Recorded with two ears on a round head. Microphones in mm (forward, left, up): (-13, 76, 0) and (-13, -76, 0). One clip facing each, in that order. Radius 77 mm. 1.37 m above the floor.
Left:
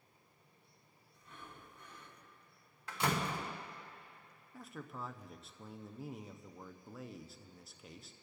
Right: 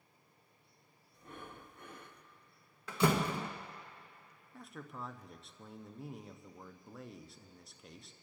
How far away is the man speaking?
About 0.5 m.